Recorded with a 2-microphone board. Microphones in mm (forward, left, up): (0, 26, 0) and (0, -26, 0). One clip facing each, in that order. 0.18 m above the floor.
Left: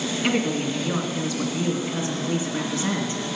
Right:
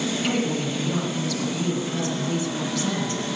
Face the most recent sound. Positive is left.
turn(degrees=20)  # may be behind; listen again after turning